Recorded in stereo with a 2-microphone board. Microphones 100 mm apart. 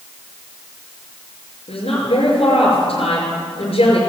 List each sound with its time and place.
1.7 s a woman speaking: 75° left (ahead or behind), 5 m